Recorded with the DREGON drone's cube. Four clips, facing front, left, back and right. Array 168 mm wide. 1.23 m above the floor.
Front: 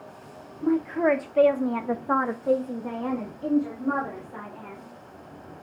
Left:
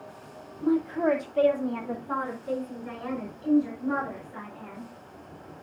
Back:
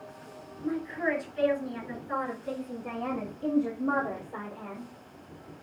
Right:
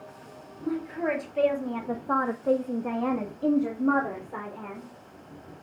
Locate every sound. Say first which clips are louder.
0.6 s a woman speaking: left 5 dB, front 8 dB; 30° left, 2.5 m; by 4.9 s 110° right, 4 m